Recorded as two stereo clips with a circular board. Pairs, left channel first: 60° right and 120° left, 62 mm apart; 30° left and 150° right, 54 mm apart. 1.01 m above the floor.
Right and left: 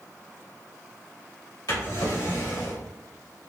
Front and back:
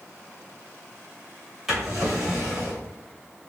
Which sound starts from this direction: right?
A drawer, at 1.7 s.